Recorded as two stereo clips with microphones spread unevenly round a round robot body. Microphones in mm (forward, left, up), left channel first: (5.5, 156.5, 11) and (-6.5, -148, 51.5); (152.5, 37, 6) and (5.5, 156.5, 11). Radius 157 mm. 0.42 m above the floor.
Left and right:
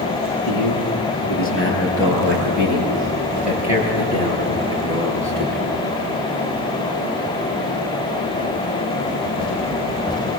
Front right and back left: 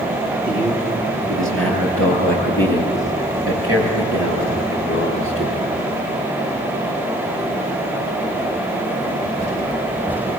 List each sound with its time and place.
0.5 s a man speaking: 130° left, 9 m; by 5.7 s 175° left, 8.5 m